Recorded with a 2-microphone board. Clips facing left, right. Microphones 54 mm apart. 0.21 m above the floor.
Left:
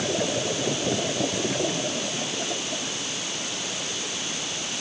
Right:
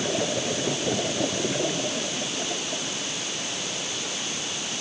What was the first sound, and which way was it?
Only background noise.